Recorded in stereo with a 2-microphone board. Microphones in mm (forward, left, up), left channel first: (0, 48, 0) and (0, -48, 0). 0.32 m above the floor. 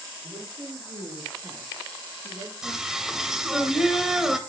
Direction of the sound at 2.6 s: 5° right (ahead or behind).